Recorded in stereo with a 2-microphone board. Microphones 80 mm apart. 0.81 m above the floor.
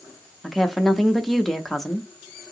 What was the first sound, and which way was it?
A woman speaking, centre (ahead or behind).